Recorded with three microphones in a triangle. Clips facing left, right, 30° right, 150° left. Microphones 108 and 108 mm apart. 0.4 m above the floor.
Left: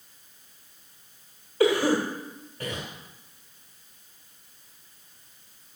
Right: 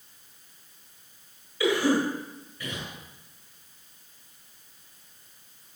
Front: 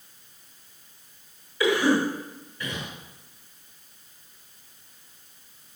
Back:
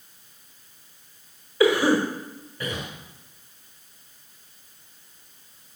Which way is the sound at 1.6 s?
125° left.